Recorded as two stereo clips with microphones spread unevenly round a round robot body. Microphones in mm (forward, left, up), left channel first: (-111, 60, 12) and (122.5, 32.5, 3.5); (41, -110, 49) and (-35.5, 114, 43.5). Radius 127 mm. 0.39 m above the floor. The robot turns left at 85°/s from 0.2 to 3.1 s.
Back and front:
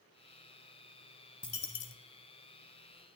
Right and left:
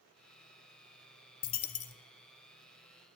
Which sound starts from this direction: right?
A dropped coin, at 1.4 s.